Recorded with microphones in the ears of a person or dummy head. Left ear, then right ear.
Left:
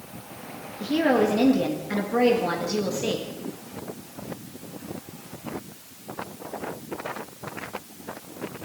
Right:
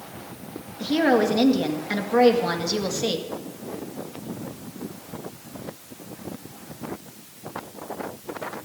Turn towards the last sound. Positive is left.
turn(degrees=-30)  # may be behind; listen again after turning